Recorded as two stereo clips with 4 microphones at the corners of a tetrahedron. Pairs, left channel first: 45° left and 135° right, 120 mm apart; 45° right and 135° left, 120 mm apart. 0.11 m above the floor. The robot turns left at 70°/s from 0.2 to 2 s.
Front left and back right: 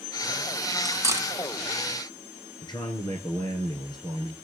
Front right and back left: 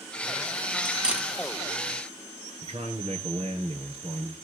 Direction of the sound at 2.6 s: 100° left.